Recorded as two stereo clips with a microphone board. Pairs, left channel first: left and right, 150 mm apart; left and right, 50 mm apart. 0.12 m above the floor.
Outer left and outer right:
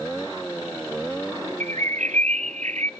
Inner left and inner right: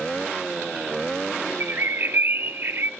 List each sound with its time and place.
1.6 s a bird: 50° right (ahead or behind), 0.9 m